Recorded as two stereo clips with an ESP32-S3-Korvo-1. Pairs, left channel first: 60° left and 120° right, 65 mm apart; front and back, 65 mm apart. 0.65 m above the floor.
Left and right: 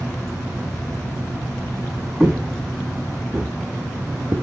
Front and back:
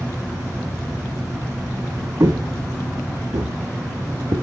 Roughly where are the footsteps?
Behind left.